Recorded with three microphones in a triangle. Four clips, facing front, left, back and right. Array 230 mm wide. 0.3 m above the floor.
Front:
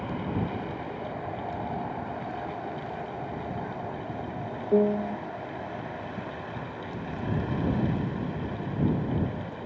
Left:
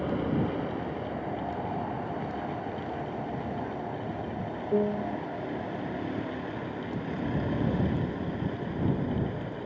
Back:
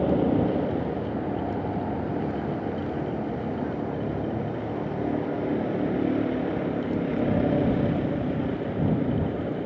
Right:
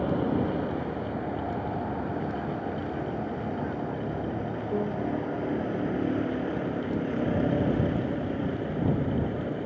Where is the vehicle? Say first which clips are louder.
Right 2 dB, back 9 dB; straight behind; by 9.7 s 155° right.